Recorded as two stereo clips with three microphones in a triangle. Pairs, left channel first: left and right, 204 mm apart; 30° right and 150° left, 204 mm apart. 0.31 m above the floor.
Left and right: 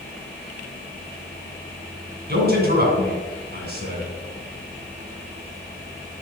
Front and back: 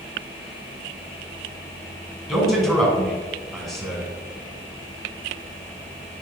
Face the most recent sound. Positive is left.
turn(degrees=-120)